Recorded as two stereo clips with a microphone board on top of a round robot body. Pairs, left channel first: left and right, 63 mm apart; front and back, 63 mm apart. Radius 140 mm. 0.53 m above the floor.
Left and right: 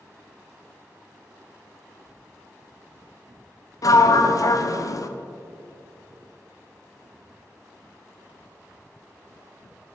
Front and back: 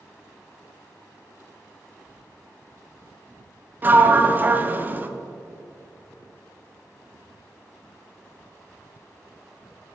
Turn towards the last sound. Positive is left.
turn(degrees=120)